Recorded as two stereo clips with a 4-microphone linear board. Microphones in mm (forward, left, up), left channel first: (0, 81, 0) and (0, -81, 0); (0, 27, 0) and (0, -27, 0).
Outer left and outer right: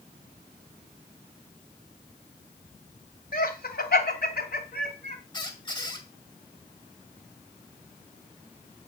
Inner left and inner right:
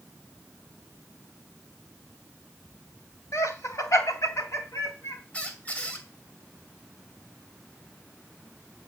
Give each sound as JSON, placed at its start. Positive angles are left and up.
{"t": 3.3, "sound": "laughter", "side_deg": 70, "distance_m": 2.5}
{"t": 5.3, "sound": "a squeak", "side_deg": 25, "distance_m": 2.0}